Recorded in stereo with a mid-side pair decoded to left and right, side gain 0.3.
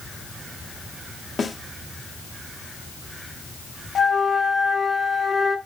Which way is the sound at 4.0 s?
45° left.